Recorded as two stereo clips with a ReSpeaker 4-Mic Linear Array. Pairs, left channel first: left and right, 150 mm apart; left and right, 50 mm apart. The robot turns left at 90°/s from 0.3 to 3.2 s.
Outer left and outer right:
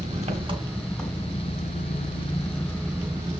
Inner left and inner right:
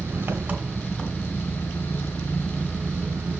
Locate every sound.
0.0 s an engine running: 120° right, 1.9 m; by 3.4 s 20° right, 1.9 m